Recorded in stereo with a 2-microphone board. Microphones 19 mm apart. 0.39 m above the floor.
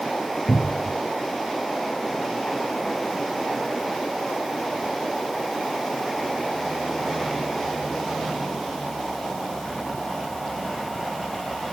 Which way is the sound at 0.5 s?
15° left (ahead or behind).